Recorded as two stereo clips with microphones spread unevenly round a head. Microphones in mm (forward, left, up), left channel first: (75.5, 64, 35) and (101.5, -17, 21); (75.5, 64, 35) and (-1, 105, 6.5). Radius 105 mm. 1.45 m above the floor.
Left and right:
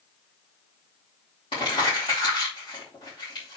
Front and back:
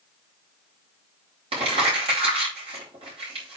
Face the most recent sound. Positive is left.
turn(degrees=165)